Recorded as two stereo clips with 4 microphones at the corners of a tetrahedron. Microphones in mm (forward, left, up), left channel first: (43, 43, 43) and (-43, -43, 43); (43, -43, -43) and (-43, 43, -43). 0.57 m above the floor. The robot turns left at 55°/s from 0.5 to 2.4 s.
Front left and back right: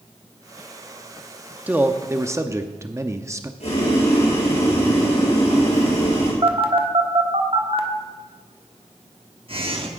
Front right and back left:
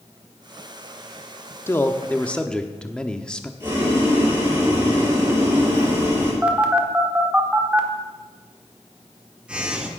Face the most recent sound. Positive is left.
turn(degrees=-150)